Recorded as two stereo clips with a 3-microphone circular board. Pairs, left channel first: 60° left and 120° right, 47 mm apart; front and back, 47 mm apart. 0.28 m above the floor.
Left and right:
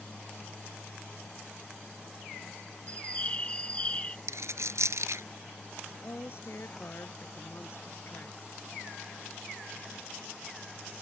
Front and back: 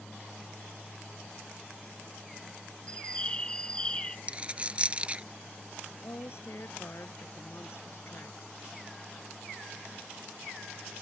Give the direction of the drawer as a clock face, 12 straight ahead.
I don't hear a drawer.